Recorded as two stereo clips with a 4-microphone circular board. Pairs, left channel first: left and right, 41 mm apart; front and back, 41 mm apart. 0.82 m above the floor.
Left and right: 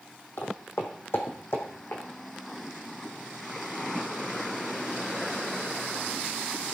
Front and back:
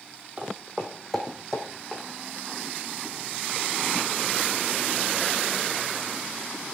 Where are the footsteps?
105° left, 1.8 m; by 2.0 s 75° left, 2.5 m.